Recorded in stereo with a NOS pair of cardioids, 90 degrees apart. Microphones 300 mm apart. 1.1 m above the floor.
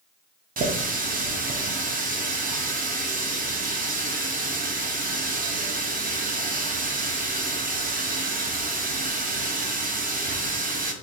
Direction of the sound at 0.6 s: 30° right.